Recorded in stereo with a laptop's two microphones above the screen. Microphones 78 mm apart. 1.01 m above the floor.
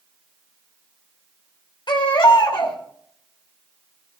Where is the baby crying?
80° left, 2.5 m.